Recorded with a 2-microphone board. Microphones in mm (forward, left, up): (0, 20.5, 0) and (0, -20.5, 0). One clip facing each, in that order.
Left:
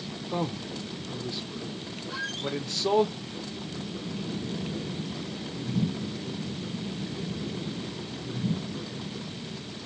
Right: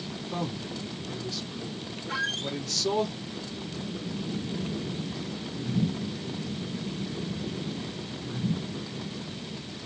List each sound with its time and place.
0.3 s a man speaking: 25° left (ahead or behind), 0.7 m
2.1 s a squeak: 55° right (ahead or behind), 1.2 m